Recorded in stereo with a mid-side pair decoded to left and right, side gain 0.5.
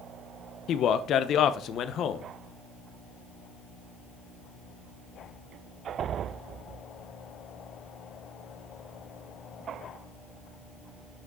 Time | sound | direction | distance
0.7 | a man speaking | 60° left | 0.8 m